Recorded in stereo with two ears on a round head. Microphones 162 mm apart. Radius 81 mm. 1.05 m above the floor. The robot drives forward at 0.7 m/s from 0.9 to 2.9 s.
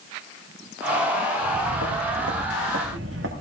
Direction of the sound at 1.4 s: 70° right (ahead or behind).